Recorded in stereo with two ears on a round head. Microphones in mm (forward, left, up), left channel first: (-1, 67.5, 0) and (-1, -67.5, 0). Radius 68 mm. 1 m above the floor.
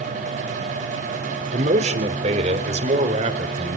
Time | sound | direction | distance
1.5 | a man speaking | 50° right (ahead or behind) | 3 m